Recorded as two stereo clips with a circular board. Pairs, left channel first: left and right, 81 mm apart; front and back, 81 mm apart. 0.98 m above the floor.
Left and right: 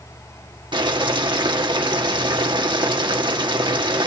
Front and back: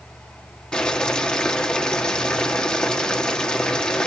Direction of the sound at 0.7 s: 80° right.